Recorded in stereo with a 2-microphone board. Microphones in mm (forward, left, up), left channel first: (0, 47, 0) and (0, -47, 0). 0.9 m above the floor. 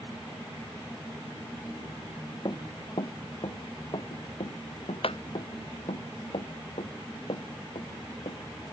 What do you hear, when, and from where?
2.5 s running footsteps: 50° left (ahead or behind); by 8.4 s 80° left